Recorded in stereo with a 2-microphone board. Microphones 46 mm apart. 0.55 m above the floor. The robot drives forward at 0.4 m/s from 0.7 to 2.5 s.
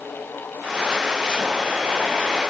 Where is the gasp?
I don't hear a gasp.